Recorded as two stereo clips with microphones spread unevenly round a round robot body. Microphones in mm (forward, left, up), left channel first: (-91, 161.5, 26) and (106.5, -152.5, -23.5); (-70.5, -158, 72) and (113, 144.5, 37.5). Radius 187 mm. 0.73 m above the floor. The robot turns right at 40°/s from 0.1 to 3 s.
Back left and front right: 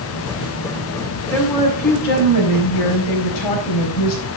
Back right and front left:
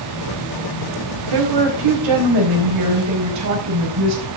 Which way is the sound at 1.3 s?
35° left.